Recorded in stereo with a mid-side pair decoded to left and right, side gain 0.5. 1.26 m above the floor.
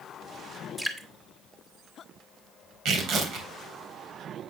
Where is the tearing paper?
65° right, 3.5 m.